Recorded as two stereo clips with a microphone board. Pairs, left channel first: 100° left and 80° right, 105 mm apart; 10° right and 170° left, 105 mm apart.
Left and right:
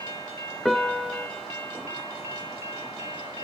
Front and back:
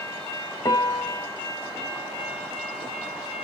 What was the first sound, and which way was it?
A piano, 15° left.